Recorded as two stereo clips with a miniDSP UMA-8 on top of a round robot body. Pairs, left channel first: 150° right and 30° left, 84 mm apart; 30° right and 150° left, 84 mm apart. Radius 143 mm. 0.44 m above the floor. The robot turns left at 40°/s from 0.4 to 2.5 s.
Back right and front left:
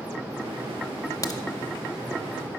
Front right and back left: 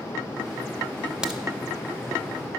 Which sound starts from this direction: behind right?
A crack, at 1.2 s.